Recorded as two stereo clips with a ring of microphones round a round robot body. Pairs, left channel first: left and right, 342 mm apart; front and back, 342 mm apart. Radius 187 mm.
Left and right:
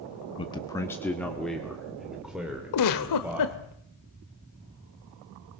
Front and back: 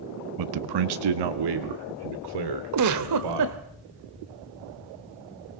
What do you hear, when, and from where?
0.4 s a man speaking: 165° left, 0.7 m; by 3.7 s 175° right, 3 m
2.7 s a giggle: 135° left, 0.9 m